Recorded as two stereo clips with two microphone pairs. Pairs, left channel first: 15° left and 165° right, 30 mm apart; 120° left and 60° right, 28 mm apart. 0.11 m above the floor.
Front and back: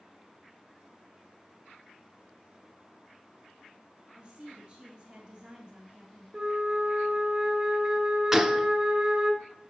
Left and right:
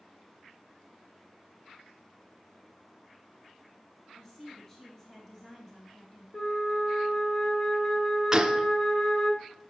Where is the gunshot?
105° right, 0.6 m.